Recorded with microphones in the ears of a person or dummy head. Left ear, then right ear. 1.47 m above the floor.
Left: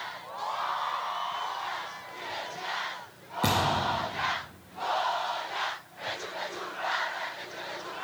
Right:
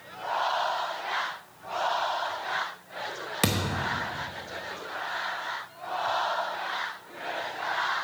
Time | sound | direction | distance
3.4 | a thud | 30° right (ahead or behind) | 0.9 m